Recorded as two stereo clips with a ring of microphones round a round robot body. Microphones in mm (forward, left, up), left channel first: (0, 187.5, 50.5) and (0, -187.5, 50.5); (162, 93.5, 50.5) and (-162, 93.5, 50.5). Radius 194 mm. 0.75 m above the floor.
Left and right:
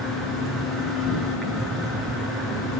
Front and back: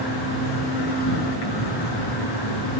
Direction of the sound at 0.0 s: Straight ahead.